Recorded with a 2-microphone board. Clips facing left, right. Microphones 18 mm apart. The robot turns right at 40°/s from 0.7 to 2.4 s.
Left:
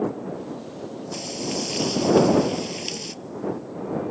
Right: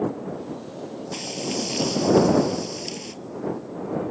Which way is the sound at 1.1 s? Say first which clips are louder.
Even; 20° right.